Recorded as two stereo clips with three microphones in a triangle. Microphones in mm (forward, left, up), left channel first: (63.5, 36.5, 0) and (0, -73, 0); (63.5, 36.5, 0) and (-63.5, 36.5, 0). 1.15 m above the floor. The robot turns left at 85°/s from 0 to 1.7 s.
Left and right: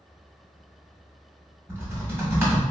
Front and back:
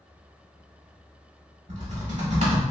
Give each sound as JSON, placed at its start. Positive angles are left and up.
{"t": 1.7, "sound": "typing on a keyboard", "azimuth_deg": 170, "distance_m": 1.4}